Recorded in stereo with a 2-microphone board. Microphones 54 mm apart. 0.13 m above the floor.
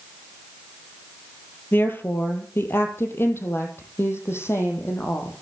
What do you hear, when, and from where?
1.7 s a woman speaking: 40° left (ahead or behind), 3.5 m; by 5.3 s 55° left (ahead or behind), 6.5 m